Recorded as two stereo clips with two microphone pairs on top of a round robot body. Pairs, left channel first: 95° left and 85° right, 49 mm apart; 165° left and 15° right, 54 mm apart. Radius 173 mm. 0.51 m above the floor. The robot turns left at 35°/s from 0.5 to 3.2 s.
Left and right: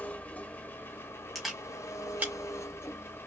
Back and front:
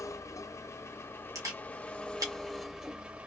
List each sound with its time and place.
0.0 s an engine running: 150° left, 1.0 m; by 3.3 s 55° left, 1.0 m
1.4 s a camera shutter: 5° left, 2.0 m; by 2.3 s 30° right, 2.0 m